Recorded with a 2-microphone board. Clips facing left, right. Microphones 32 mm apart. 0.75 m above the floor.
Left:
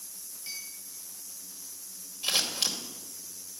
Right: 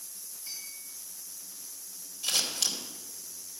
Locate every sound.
0.5 s a clink: 45° left (ahead or behind), 6 m
2.2 s scissors: 25° left (ahead or behind), 2.5 m